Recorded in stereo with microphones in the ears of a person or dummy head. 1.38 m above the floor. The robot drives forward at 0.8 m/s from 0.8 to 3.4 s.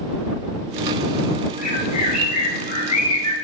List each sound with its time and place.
1.6 s a bird: 45° left (ahead or behind), 4.5 m; by 3.3 s 35° left (ahead or behind), 6 m